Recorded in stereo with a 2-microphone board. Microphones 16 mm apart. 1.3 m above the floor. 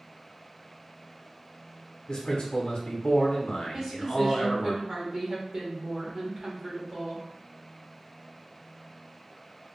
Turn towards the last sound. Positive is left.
turn(degrees=-45)  # may be behind; listen again after turning